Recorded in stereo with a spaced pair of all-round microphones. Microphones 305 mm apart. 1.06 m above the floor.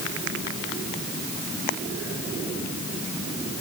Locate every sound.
Only background noise.